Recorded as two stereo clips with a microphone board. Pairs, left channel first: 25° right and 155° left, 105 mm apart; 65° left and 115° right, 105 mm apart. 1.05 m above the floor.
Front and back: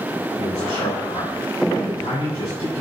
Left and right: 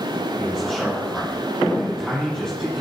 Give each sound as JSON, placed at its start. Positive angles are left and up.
{"t": 0.4, "sound": "a man speaking", "azimuth_deg": -20, "distance_m": 4.0}